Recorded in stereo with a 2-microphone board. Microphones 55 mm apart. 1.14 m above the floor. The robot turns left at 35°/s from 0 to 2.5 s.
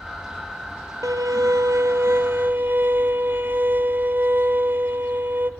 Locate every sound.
1.0 s a violin: 95° right, 1.1 m; by 5.5 s 145° right, 1.1 m